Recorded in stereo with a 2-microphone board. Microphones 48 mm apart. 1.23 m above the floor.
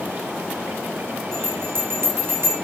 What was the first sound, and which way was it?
A bell, 80° right.